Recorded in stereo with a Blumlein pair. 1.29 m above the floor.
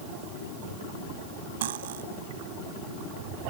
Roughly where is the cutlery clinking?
Ahead right.